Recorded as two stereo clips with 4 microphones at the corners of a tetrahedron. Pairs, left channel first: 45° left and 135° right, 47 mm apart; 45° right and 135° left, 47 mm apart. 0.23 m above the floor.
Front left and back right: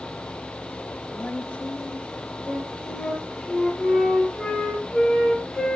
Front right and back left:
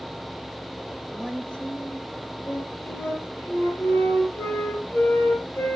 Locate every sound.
1.1 s a woman speaking: 5° left, 1.3 m
2.5 s a flute: 35° right, 4 m